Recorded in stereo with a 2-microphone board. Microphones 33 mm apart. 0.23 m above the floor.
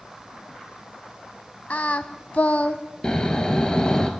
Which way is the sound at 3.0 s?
25° left (ahead or behind).